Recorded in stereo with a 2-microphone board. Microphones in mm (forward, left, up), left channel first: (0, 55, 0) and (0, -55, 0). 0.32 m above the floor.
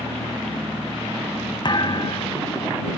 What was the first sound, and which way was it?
A thud, 40° left (ahead or behind).